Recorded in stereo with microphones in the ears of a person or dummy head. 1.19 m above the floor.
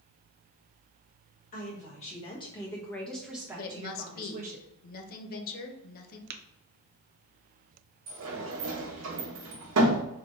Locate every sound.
1.5 s a woman speaking: 45° left (ahead or behind), 1.4 m; by 4.6 s 45° right (ahead or behind), 1.1 m
3.6 s a woman speaking: 50° left (ahead or behind), 0.8 m
6.3 s tapping: 55° right (ahead or behind), 0.5 m
8.1 s a sliding door: 80° right, 1.1 m